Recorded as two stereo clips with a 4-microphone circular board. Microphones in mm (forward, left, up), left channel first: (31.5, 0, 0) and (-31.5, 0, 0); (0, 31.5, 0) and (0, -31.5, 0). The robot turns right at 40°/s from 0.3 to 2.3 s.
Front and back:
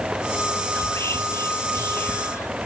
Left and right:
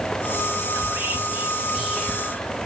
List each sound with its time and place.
0.8 s whispering: 50° right, 1.6 m; by 2.7 s 15° left, 1.6 m